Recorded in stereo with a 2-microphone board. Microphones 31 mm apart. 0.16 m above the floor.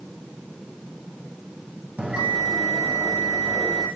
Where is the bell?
45° right (ahead or behind), 9.5 m.